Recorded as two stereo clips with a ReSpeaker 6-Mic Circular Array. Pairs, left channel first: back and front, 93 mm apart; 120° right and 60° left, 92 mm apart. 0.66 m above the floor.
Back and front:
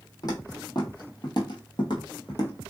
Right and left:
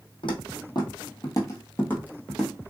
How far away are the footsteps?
About 1.4 m.